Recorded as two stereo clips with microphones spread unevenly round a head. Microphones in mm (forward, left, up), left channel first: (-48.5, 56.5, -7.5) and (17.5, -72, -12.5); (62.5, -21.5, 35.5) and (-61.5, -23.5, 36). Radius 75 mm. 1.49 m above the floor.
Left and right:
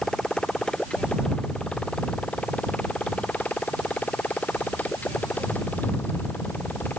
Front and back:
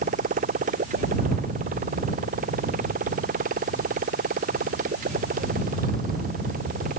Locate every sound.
0.0 s a motorcycle: 155° right; by 7.0 s 165° right